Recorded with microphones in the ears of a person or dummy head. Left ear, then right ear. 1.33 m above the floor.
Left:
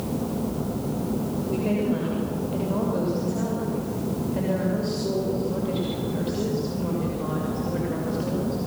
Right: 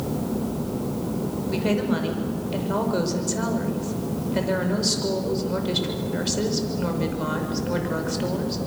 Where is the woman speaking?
60° right (ahead or behind), 5.5 m.